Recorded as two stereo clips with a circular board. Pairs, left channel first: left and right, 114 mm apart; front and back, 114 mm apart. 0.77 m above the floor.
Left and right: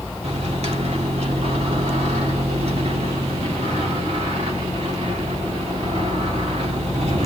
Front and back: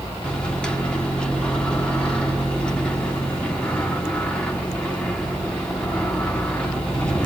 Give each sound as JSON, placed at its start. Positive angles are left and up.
{"t": 0.2, "sound": "a microwave", "azimuth_deg": -80, "distance_m": 1.7}